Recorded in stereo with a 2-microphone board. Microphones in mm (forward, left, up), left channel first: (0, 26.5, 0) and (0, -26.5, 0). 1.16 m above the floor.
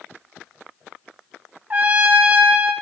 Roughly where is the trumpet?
Right.